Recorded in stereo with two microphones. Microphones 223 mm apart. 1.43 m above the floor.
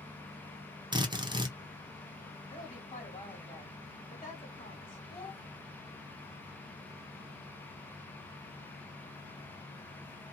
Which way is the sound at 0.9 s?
20° right (ahead or behind).